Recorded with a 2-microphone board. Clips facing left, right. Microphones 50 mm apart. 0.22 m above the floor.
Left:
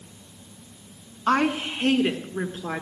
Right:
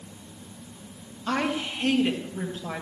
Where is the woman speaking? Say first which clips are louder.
Left 5 dB; 45° left (ahead or behind), 1.7 m; by 2.8 s 35° left (ahead or behind), 2.5 m.